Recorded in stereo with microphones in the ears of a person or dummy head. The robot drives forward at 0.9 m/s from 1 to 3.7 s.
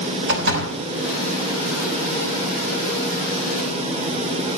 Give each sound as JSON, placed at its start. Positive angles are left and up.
{"t": 0.3, "sound": "a door slam", "side_deg": -75, "distance_m": 5.0}